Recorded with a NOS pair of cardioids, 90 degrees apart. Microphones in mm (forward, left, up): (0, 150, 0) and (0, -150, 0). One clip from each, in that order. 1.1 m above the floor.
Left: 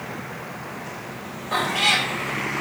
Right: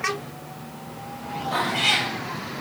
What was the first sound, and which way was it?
A cat meowing, 50° left.